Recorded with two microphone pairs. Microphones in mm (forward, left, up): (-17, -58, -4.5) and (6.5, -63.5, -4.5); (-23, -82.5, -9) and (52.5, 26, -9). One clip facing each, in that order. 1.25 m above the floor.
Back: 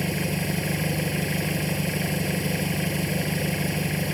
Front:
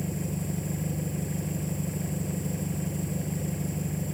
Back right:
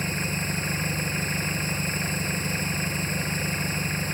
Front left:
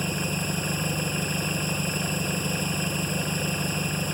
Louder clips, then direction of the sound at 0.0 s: Back 6 dB, front left 1 dB; 135° left.